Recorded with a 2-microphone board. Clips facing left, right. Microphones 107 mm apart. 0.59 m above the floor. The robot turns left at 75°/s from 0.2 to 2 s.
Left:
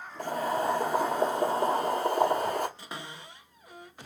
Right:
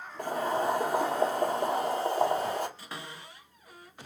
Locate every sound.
0.2 s boiling: 120° right, 1.6 m; by 2.7 s 105° left, 1.6 m
2.8 s a cupboard door: 20° left (ahead or behind), 1.3 m